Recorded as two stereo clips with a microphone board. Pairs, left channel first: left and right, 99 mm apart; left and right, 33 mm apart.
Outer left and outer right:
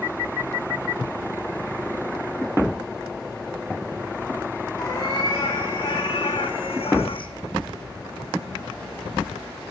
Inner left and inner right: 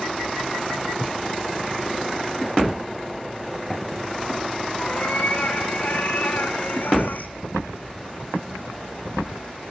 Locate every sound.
4.8 s a cat meowing: 40° left (ahead or behind), 2.5 m; by 7.3 s 55° left (ahead or behind), 0.6 m